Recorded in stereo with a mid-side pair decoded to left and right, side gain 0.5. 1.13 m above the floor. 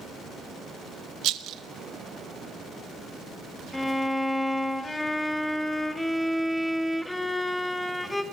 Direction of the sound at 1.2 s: 70° right.